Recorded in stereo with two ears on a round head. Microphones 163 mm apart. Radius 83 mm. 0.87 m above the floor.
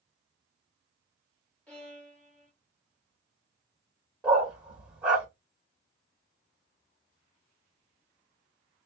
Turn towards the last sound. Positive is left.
turn(degrees=-5)  # may be behind; listen again after turning